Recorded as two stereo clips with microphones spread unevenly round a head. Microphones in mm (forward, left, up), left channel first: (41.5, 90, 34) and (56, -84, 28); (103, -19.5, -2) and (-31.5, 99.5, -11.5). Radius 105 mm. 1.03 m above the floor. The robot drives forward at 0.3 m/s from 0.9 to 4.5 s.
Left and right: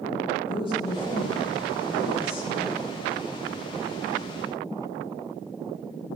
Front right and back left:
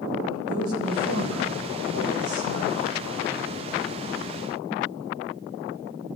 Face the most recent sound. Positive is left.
turn(degrees=165)